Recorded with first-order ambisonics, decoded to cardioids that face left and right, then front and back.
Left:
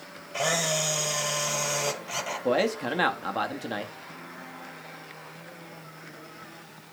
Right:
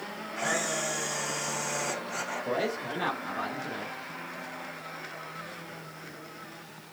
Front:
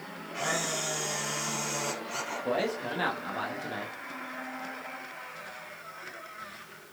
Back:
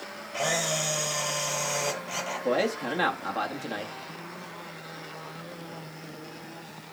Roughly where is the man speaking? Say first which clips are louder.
Left 8 dB, back 4 dB; left.